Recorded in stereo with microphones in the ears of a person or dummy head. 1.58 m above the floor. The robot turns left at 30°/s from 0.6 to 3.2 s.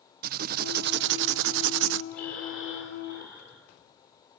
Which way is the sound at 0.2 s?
55° right.